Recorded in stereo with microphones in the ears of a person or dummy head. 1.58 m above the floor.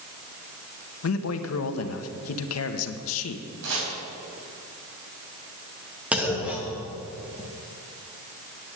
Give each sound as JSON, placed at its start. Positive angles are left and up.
{"t": 1.0, "sound": "a man speaking", "side_deg": 80, "distance_m": 1.0}
{"t": 3.6, "sound": "chopping", "side_deg": -70, "distance_m": 3.5}
{"t": 6.1, "sound": "a clunk", "side_deg": -15, "distance_m": 1.5}